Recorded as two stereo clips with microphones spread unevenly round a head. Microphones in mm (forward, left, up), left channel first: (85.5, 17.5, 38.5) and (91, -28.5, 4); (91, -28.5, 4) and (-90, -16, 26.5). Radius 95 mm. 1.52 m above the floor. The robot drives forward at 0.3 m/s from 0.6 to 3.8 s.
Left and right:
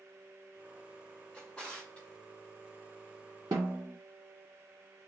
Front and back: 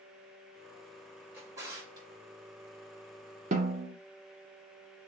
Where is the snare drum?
150° right, 0.8 m; by 3.9 s 155° right, 0.9 m.